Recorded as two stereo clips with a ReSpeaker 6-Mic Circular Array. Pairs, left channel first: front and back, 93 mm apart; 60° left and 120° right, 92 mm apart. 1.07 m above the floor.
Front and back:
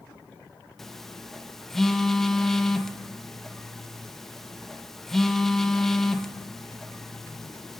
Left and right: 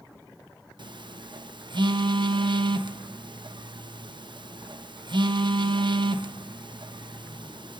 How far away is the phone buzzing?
About 0.6 m.